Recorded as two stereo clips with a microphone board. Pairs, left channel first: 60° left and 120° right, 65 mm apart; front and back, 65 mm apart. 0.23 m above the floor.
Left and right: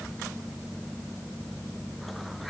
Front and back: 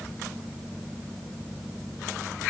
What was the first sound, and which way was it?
Only background noise.